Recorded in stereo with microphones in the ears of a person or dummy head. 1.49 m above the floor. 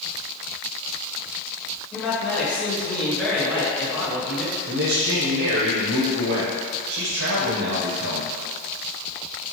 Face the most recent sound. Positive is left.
turn(degrees=-80)